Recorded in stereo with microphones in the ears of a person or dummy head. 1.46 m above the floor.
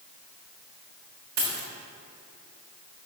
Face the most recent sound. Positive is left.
turn(degrees=-50)  # may be behind; listen again after turning